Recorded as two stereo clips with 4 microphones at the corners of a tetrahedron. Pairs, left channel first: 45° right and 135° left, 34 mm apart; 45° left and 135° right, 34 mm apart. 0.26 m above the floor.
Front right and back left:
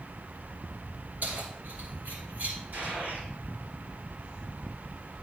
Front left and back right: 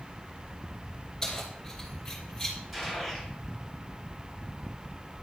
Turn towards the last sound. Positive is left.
turn(degrees=140)